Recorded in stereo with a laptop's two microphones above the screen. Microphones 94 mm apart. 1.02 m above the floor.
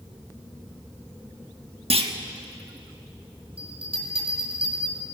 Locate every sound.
1.9 s a clunk: 75° right (ahead or behind), 1.3 m
3.6 s a bell: 70° right (ahead or behind), 5 m